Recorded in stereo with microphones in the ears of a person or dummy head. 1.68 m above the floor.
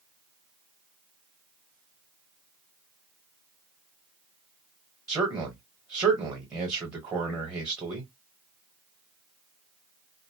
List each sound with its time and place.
5.1 s a man speaking: 10° right (ahead or behind), 1.1 m